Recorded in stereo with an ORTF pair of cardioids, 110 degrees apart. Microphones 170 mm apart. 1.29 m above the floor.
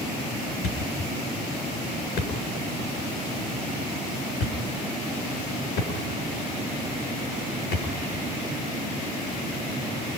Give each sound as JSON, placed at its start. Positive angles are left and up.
{"t": 0.6, "sound": "a thud", "azimuth_deg": 70, "distance_m": 7.0}